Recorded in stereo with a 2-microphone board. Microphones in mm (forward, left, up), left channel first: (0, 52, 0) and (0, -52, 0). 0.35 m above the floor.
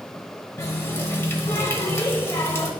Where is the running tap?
25° left (ahead or behind), 1.1 m.